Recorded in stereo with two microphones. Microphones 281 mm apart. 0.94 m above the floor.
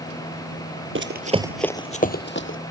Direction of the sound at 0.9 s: 45° right (ahead or behind).